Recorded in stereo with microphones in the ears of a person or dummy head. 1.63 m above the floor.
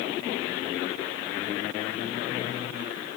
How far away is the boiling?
I don't hear boiling.